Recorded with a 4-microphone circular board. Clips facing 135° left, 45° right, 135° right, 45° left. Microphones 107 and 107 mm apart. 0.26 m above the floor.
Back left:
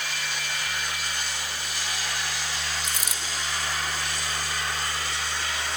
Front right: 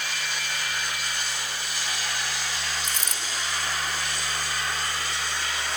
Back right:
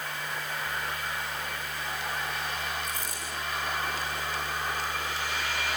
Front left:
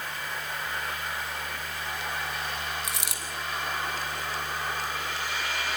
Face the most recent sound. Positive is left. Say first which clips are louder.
# even, even
turn(degrees=55)